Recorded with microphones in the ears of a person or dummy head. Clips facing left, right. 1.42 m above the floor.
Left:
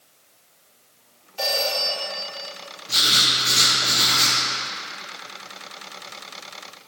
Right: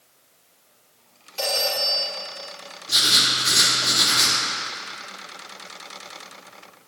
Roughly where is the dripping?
No dripping in this recording.